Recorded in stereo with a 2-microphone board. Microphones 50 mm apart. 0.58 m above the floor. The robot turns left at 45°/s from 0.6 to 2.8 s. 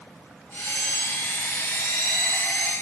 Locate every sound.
Only background noise.